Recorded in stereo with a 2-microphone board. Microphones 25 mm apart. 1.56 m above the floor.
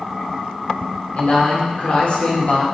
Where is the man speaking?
60° left (ahead or behind), 1.9 m.